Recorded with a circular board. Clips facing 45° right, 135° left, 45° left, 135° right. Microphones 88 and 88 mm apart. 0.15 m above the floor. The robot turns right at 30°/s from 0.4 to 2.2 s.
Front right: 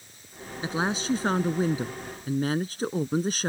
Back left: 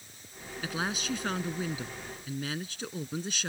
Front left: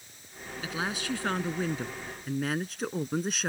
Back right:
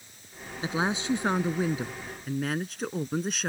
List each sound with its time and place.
0.6 s a woman speaking: 90° right; by 3.5 s 45° right